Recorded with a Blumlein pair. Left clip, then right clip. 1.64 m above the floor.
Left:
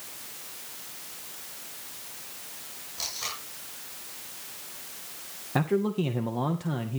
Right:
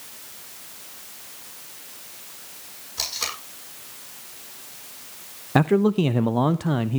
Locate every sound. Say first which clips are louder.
3.0 s tape being pulled: right 6 dB; 45° right, 8.5 m
5.5 s a man speaking: right 7 dB; 25° right, 0.6 m